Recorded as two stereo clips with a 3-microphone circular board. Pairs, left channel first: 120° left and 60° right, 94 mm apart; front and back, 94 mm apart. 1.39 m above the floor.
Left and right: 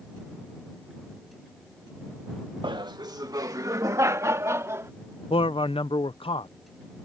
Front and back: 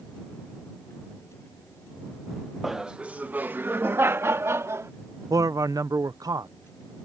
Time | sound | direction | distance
2.6 | laughter | 90° right | ?
5.3 | a man speaking | 130° left | ?